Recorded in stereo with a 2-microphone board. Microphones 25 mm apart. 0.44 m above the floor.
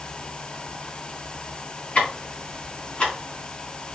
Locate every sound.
1.9 s ticking: 45° left (ahead or behind), 3.5 m